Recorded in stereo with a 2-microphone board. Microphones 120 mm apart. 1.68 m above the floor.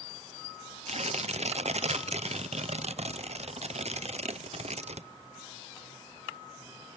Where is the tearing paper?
65° right (ahead or behind), 0.7 m.